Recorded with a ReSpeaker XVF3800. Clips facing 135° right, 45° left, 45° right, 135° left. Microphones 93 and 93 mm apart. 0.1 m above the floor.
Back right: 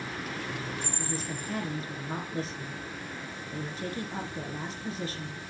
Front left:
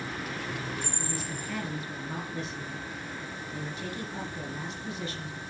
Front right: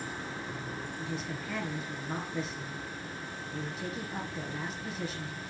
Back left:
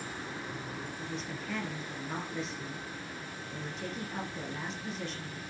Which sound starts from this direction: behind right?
A woman speaking, at 1.0 s.